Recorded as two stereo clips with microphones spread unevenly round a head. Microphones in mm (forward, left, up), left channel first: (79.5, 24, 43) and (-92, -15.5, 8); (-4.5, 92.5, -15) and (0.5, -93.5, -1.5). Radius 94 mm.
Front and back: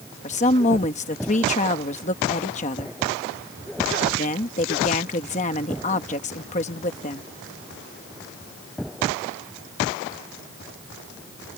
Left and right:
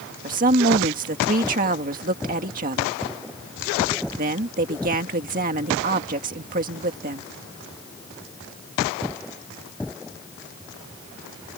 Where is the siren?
I don't hear a siren.